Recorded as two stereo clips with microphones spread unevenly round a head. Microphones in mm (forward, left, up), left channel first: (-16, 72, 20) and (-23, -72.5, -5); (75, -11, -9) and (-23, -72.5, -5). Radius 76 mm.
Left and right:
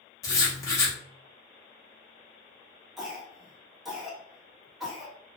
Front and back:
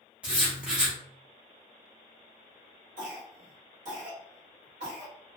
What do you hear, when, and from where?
0.2 s writing: 135° left, 1.0 m
3.0 s a cough: 175° left, 1.5 m